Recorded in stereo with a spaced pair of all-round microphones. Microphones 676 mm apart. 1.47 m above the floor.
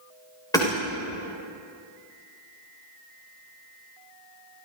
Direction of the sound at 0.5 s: 5° left (ahead or behind).